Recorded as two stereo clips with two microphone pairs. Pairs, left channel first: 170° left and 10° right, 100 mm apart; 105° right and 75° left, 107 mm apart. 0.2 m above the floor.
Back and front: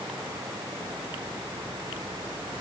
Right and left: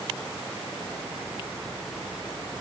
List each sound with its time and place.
Only background noise.